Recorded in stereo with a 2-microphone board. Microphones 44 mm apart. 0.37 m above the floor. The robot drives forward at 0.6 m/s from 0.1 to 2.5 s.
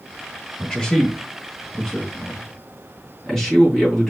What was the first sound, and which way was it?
A man speaking, 20° left (ahead or behind).